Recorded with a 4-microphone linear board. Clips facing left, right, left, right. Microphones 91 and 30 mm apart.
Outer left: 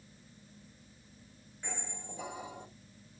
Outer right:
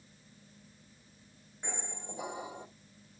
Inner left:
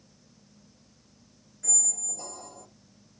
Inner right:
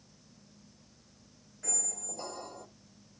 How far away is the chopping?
No chopping in this recording.